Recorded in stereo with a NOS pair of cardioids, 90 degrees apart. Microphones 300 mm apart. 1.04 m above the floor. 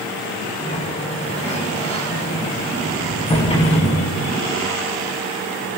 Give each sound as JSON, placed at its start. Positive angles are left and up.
{"t": 0.6, "sound": "a sliding door", "azimuth_deg": 20, "distance_m": 9.0}